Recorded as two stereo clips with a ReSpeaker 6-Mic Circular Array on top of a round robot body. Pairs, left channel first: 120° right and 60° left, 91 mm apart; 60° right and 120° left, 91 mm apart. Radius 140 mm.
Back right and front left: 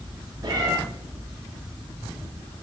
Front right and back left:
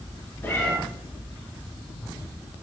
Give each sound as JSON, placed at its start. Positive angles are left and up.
{"t": 0.4, "sound": "a cat meowing", "azimuth_deg": 10, "distance_m": 5.0}